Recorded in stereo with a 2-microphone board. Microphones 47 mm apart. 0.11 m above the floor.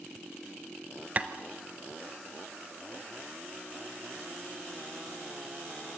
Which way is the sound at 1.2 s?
30° right (ahead or behind).